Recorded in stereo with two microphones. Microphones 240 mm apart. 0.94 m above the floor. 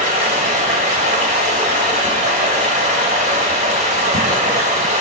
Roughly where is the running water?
Right.